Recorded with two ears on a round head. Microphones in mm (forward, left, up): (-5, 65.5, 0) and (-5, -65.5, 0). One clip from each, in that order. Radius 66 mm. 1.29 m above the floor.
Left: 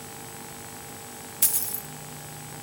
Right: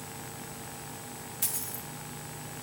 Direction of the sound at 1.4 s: 20° left (ahead or behind).